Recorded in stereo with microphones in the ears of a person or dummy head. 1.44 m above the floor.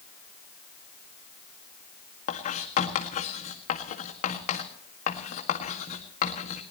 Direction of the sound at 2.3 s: 40° left (ahead or behind).